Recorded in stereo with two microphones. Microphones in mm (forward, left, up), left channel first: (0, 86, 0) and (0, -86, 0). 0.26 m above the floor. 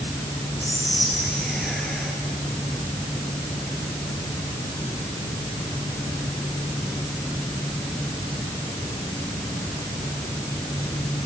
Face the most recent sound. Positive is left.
turn(degrees=0)  # may be behind; listen again after turning